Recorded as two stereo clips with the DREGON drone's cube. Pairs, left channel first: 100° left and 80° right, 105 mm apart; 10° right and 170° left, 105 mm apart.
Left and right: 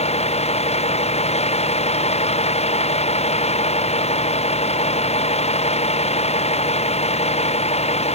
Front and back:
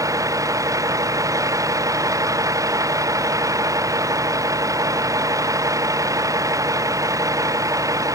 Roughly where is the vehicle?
Left.